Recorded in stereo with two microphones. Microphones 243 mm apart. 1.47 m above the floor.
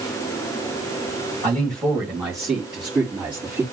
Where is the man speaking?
5° left (ahead or behind), 3 m; by 3.6 s 10° right (ahead or behind), 4.5 m.